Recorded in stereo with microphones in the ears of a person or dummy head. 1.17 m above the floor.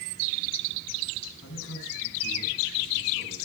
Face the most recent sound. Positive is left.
turn(degrees=85)